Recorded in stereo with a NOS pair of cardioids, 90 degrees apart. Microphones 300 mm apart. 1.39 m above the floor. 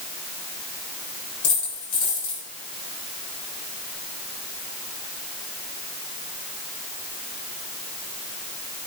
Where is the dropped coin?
50° left, 5 m.